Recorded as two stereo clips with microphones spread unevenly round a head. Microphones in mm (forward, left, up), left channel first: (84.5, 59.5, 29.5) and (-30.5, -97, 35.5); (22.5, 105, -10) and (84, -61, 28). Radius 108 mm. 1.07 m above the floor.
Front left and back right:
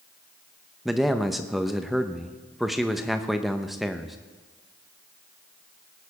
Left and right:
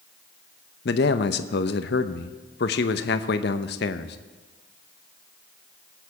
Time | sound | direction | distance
0.8 | a man speaking | 145° left | 0.6 m